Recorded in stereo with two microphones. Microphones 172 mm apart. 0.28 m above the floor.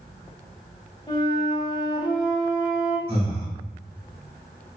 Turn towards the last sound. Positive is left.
turn(degrees=-35)  # may be behind; listen again after turning